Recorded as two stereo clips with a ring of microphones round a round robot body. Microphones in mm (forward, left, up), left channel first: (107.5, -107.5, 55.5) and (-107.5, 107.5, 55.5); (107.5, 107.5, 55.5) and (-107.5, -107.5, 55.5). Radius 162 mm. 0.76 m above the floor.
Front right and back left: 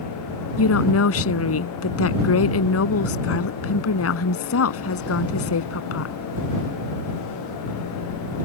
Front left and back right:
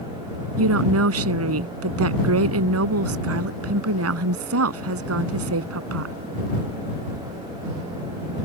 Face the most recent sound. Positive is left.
turn(degrees=-90)